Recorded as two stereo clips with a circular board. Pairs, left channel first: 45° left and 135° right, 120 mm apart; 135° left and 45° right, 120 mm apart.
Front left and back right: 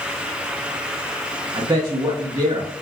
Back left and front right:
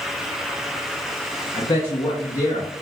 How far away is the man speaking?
About 1.0 m.